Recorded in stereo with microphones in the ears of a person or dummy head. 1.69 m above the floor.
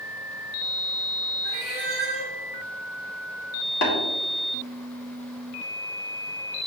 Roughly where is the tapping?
Left.